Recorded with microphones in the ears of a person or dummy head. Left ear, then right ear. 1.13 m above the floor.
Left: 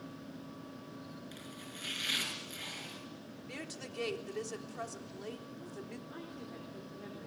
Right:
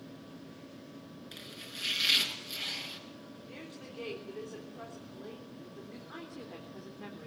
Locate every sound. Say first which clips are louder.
1.3 s chopping: right 8 dB; 15° right (ahead or behind), 5 m
3.5 s a woman speaking: left 4 dB; 85° left, 3.5 m
6.1 s a woman speaking: right 2 dB; 35° right (ahead or behind), 4 m